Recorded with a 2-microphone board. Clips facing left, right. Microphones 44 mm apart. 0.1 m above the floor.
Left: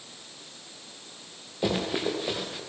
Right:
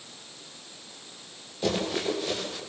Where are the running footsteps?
15° left (ahead or behind), 8.5 m.